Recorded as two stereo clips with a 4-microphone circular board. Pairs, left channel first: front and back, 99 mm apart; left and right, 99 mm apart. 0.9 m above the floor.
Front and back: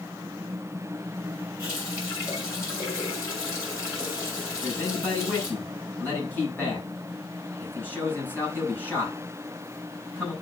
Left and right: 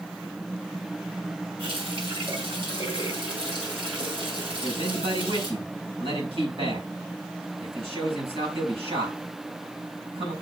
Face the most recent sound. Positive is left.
turn(degrees=-70)